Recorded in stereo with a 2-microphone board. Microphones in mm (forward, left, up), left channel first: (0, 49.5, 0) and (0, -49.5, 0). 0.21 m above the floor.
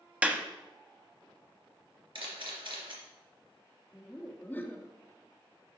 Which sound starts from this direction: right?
A camera shutter, at 2.1 s.